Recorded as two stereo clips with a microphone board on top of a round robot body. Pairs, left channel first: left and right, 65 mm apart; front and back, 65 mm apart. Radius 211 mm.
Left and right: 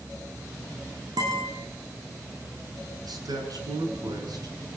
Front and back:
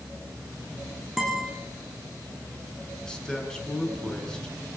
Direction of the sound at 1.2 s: 95° right.